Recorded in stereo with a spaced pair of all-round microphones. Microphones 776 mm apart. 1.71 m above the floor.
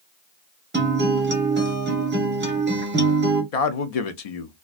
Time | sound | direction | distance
0.7 | a guitar | 15° right (ahead or behind) | 0.6 m
3.5 | a man speaking | 55° left (ahead or behind) | 0.6 m